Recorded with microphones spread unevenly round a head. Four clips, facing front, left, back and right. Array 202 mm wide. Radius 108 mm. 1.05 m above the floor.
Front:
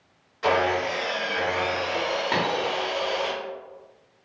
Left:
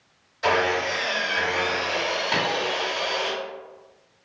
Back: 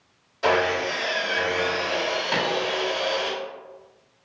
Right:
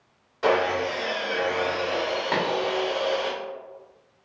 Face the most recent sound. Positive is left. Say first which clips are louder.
# right 1 dB, even
turn(degrees=-40)